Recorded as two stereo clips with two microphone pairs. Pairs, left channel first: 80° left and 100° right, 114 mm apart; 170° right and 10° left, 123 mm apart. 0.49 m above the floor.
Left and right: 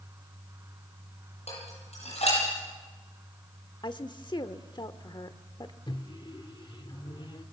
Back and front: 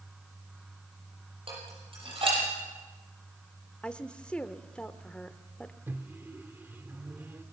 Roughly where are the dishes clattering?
Ahead left.